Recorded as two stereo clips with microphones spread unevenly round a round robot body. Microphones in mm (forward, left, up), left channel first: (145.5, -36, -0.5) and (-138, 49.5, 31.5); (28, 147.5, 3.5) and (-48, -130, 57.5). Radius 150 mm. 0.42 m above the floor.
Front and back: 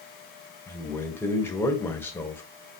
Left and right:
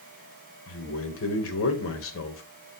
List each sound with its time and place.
0.7 s a man speaking: 60° left, 1.6 m